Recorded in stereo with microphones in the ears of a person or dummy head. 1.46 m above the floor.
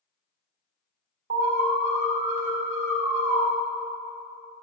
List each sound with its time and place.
1.3 s an alarm: 35° right (ahead or behind), 1.8 m